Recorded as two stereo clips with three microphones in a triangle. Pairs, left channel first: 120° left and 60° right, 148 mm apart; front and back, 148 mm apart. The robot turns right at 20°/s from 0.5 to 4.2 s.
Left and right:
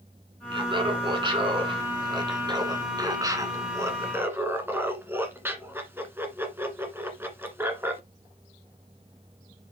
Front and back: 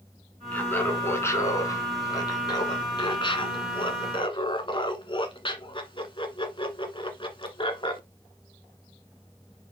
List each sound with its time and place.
0.5 s laughter: 70° right, 1.4 m; by 8.0 s 5° left, 1.4 m